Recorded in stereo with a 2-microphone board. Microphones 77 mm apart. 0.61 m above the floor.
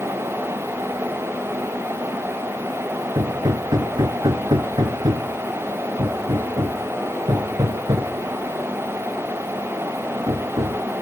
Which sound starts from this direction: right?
Hammering, at 3.1 s.